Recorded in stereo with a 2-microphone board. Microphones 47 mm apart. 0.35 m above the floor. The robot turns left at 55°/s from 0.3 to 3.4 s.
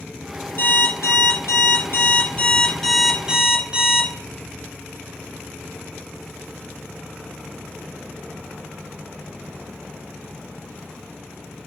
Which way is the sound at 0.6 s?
135° left.